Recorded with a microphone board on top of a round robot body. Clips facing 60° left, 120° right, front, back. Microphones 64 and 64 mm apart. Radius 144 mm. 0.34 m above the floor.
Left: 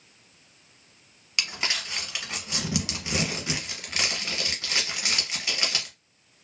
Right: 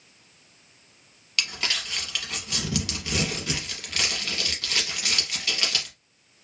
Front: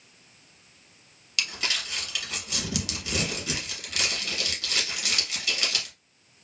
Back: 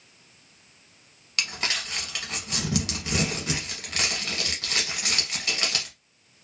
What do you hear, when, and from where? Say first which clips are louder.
1.4 s crumpling: even, back 1 dB; 130° left, 0.9 m